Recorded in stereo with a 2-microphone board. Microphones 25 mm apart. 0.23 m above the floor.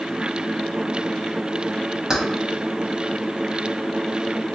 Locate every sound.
2.1 s keys jangling: 20° right (ahead or behind), 0.7 m